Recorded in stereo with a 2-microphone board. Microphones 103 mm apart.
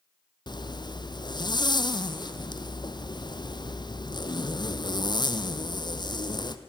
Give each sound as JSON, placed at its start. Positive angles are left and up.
{"t": 0.5, "sound": "a zipper", "side_deg": 45, "distance_m": 0.9}